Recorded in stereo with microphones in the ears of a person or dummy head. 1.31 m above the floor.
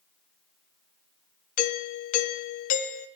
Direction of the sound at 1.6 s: 35° left (ahead or behind).